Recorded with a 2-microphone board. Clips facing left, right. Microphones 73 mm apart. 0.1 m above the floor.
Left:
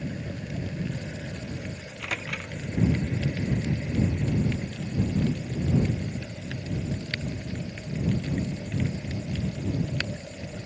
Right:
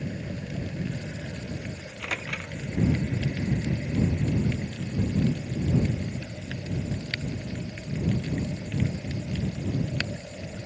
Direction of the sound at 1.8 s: 5° right (ahead or behind).